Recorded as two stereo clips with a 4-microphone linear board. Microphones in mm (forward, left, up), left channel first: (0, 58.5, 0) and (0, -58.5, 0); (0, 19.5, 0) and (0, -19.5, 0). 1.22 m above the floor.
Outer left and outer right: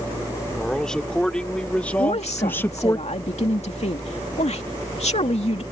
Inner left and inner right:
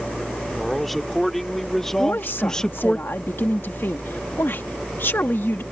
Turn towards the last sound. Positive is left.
turn(degrees=70)  # may be behind; listen again after turning